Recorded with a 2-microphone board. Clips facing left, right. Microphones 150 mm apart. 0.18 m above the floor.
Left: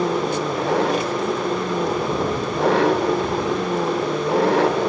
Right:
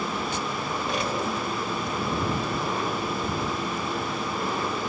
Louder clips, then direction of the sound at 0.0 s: Left 9 dB; 80° left.